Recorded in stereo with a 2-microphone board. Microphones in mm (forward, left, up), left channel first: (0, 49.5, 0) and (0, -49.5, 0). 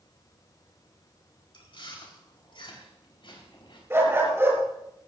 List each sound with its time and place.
1.5 s chewing: 60° left (ahead or behind), 4 m
3.9 s a dog barking: 25° right (ahead or behind), 5 m